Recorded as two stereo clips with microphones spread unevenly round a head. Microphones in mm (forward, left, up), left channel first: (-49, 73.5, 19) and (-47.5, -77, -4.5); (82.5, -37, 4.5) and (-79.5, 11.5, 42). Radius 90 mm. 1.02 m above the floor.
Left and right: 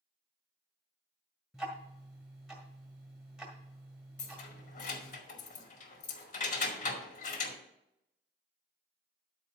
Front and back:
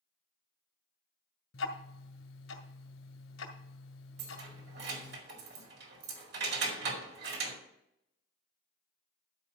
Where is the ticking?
5° left, 1.7 m.